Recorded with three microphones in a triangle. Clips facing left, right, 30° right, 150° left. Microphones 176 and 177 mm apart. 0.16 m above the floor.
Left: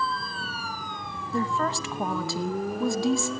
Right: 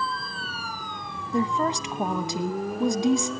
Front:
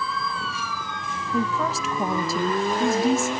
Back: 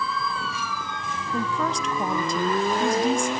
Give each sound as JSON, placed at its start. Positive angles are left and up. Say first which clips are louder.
{"t": 1.3, "sound": "a woman speaking", "louder": "right 3 dB, front 2 dB", "azimuth_deg": -105, "distance_m": 1.0}